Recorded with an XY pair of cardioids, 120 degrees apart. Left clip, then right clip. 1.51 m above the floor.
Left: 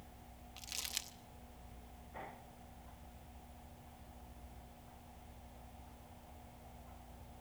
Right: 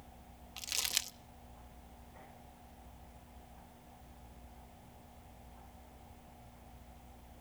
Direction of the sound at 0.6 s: 40° right.